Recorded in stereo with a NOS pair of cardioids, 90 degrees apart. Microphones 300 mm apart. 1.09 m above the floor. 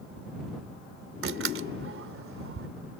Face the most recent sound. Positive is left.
turn(degrees=-40)